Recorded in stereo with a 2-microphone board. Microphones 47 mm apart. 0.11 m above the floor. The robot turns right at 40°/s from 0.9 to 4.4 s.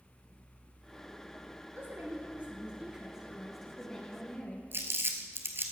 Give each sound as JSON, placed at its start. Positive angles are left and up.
{"t": 1.8, "sound": "a woman speaking", "azimuth_deg": -70, "distance_m": 2.0}
{"t": 4.7, "sound": "crumpling", "side_deg": -50, "distance_m": 1.2}